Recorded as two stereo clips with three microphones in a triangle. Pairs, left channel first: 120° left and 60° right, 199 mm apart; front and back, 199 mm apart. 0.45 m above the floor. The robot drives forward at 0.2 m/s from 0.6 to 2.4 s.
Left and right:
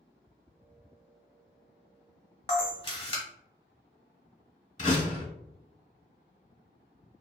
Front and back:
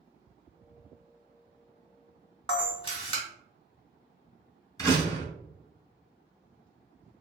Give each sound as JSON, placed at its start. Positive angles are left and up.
{"t": 2.5, "sound": "a camera shutter", "azimuth_deg": 60, "distance_m": 1.1}
{"t": 4.8, "sound": "a door slam", "azimuth_deg": 70, "distance_m": 1.1}